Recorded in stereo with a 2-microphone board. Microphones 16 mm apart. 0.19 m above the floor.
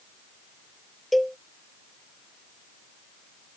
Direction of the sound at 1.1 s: 5° left (ahead or behind).